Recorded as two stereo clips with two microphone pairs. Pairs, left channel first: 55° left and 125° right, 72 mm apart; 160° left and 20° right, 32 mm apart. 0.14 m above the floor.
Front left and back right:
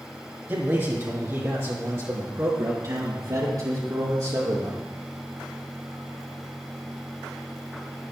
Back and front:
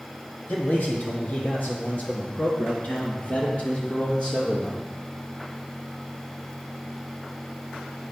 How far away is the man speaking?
About 4 m.